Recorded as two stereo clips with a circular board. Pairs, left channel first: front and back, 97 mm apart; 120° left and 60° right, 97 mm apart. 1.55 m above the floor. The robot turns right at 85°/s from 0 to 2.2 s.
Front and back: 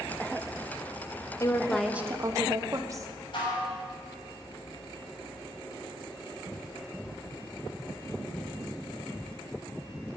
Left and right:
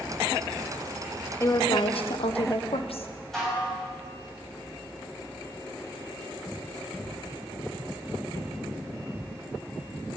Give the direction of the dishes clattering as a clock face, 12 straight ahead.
11 o'clock.